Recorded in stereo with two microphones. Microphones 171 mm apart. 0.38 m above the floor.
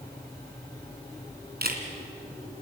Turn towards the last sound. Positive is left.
turn(degrees=-65)  # may be behind; listen again after turning